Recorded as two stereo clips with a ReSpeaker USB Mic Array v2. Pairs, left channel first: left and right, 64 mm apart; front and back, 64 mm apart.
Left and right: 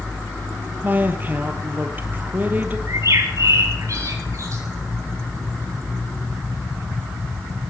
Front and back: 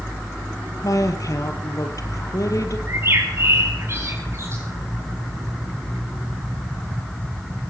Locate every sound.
0.8 s a woman speaking: 30° right, 3 m
2.9 s a bird: 130° right, 5.5 m